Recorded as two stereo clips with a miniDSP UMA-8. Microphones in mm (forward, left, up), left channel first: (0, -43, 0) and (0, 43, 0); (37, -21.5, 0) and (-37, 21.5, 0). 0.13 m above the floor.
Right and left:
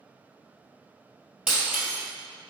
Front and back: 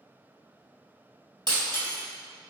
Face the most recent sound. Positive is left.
turn(degrees=170)